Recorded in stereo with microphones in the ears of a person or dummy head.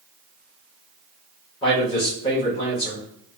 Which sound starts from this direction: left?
A man speaking, at 1.6 s.